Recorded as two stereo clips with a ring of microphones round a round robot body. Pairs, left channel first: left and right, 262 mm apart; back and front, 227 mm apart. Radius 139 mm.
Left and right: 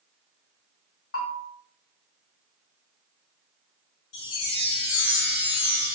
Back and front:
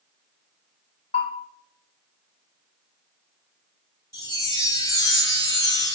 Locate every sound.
1.1 s a bell: 120° left, 1.3 m
4.1 s a chime: 105° left, 2 m